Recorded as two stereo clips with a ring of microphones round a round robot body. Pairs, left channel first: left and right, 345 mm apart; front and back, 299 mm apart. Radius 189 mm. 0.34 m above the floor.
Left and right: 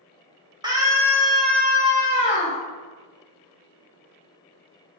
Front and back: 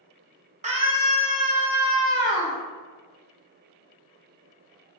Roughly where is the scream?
Behind right.